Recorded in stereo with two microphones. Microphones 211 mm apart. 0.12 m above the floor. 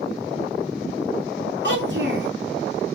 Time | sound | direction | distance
1.6 | a child speaking | 60° right (ahead or behind) | 1.4 m